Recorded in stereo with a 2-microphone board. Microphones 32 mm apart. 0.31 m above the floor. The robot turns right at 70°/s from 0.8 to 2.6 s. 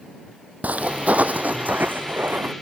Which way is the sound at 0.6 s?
60° right (ahead or behind).